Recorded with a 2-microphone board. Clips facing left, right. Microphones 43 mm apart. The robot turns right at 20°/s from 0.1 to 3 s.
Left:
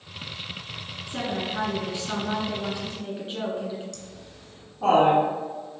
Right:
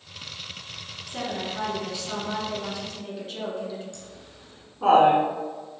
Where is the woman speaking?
100° left, 1.6 m; by 3.8 s 140° left, 1.6 m.